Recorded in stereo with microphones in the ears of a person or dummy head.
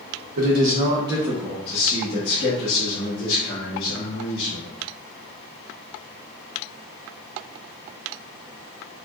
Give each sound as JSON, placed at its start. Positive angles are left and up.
{"t": 0.4, "sound": "a man speaking", "side_deg": -45, "distance_m": 0.7}